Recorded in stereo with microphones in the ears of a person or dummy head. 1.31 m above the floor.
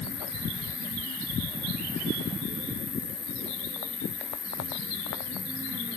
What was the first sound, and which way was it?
An insect, 45° left (ahead or behind).